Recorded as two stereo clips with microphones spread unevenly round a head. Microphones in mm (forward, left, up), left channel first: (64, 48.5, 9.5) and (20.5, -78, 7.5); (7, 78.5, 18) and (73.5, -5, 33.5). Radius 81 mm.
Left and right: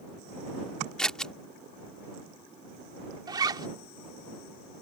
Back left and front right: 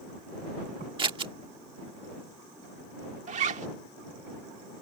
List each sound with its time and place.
1.0 s scissors: 15° right
3.3 s a zipper: 50° right